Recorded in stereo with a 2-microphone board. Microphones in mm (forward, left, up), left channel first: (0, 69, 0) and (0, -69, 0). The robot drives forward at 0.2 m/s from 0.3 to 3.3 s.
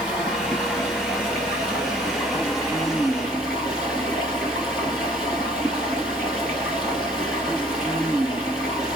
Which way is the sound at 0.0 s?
Centre (ahead or behind).